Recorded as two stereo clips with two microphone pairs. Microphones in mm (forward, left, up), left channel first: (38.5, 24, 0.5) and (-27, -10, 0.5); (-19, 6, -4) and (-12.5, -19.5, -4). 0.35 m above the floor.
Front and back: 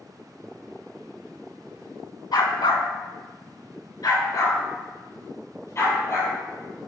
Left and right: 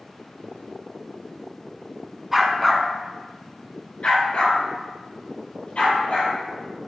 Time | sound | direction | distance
2.3 | a dog barking | 10° left | 1.2 m